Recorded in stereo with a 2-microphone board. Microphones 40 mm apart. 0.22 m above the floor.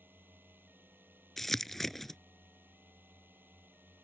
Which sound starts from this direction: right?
A drone, at 0.0 s.